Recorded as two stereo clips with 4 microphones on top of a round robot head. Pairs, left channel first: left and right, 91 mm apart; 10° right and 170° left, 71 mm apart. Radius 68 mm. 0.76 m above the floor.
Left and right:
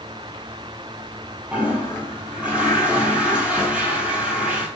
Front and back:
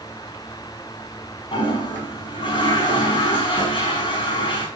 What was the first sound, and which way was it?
A toilet flushing, 15° right.